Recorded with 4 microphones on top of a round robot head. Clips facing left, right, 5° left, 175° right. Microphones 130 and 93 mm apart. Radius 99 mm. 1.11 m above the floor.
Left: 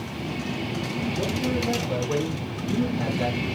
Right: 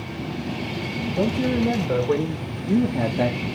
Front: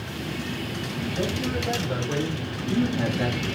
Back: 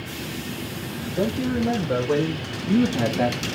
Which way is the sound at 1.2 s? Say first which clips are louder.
Right 7 dB, back 6 dB; 120° right.